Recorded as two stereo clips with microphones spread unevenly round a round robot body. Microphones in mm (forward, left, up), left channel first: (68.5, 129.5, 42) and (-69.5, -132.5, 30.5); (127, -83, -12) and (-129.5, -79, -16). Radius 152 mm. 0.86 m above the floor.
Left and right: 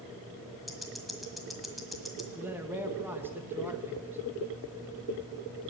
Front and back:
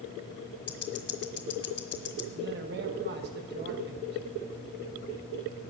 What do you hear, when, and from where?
0.7 s ticking: 25° right, 1.6 m
2.4 s a man speaking: 165° left, 1.1 m